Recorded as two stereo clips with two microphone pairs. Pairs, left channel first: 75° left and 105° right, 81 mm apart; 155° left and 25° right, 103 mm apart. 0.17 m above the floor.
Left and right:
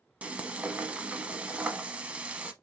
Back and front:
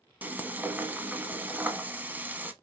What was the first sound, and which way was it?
Frying, 65° right.